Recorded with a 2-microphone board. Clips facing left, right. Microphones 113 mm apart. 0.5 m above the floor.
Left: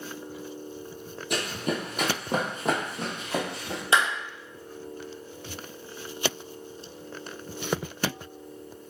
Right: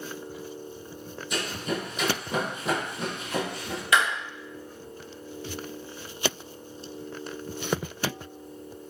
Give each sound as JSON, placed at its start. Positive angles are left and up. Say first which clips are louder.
{"t": 1.3, "sound": "running footsteps", "louder": "left 1 dB", "side_deg": 65, "distance_m": 1.1}
{"t": 3.9, "sound": "a clap", "louder": "even", "side_deg": 30, "distance_m": 0.7}